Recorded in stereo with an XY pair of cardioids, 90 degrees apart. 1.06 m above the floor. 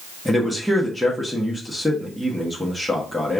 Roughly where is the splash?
No splash in this recording.